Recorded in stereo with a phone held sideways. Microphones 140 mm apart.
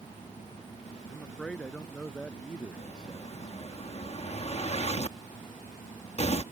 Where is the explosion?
50° left (ahead or behind).